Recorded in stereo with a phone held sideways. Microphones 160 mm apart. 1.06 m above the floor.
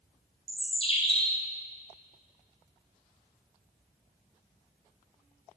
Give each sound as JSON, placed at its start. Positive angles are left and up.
{"t": 0.5, "sound": "a bird", "side_deg": 35, "distance_m": 2.5}